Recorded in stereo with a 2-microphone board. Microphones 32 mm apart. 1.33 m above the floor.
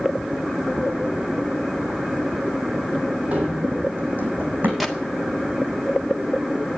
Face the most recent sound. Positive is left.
turn(degrees=0)  # may be behind; listen again after turning